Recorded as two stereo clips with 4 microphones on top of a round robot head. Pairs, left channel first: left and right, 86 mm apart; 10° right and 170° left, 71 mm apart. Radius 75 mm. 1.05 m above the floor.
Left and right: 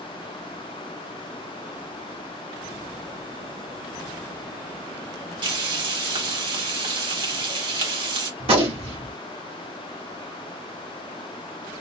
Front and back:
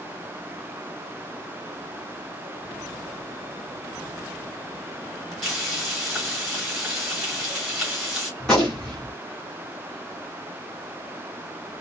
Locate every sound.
5.4 s frying: 100° right, 1.8 m
8.4 s a gunshot: 95° right, 1.3 m